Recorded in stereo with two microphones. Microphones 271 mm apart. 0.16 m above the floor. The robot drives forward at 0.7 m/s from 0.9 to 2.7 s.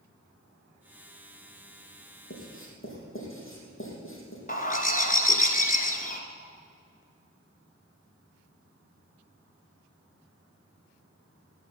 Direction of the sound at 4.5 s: 30° left (ahead or behind).